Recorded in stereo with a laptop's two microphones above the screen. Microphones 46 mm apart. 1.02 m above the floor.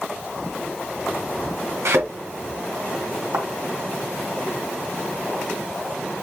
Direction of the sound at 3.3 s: 65° right (ahead or behind).